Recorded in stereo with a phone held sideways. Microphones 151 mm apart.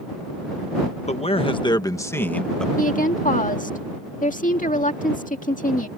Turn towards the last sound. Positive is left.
turn(degrees=60)  # may be behind; listen again after turning